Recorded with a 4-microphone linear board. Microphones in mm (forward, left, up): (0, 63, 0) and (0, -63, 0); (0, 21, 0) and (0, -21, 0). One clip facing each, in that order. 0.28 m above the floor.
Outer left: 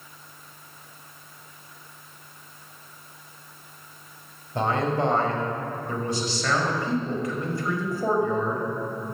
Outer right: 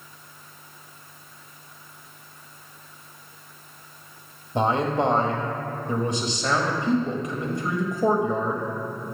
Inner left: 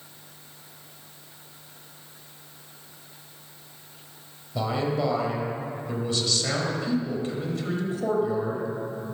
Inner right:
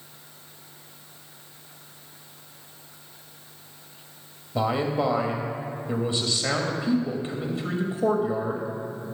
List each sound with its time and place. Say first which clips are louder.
4.5 s a man speaking: outer right 2 dB, inner right 2 dB; 20° right (ahead or behind), 0.9 m